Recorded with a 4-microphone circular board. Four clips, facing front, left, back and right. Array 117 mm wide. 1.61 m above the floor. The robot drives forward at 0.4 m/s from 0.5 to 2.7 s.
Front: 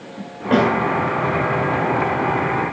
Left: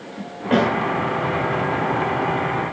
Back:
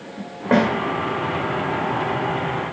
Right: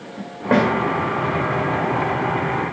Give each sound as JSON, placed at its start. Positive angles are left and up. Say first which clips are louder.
{"t": 0.5, "sound": "a snare drum", "louder": "right 1 dB, front 1 dB", "azimuth_deg": -120, "distance_m": 1.4}